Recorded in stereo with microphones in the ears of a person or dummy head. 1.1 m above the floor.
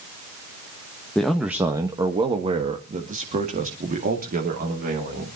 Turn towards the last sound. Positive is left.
turn(degrees=-45)  # may be behind; listen again after turning